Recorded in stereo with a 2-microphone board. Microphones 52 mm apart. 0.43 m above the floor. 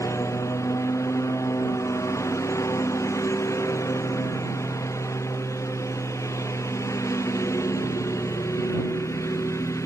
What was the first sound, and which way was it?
A lawn mower, 65° left (ahead or behind).